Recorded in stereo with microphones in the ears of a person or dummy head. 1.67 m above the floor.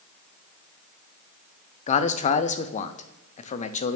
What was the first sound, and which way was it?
A man speaking, 35° left (ahead or behind).